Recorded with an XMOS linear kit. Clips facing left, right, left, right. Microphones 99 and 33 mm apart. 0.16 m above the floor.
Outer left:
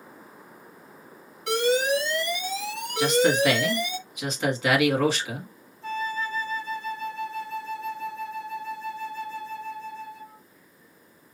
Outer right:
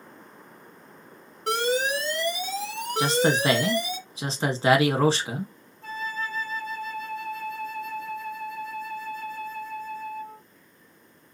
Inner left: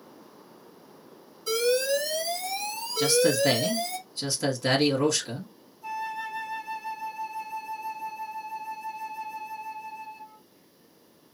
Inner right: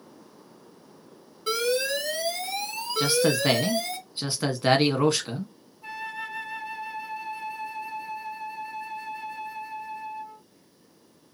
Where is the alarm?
45° right (ahead or behind), 3 m.